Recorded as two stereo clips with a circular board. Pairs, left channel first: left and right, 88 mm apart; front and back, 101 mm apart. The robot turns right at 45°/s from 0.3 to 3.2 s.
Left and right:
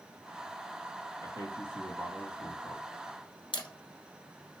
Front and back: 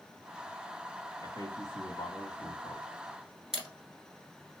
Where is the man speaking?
45° right, 1.7 m; by 2.9 s 30° left, 1.7 m.